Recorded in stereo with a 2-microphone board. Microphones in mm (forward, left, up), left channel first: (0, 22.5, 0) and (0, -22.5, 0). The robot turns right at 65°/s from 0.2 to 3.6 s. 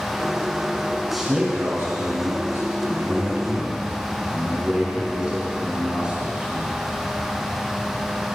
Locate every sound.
1.1 s a man speaking: 175° left, 5 m; by 6.8 s 25° right, 5 m